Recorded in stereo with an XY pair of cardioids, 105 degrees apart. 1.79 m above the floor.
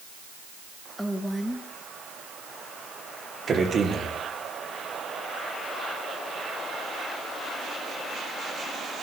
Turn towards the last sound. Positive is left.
turn(degrees=-45)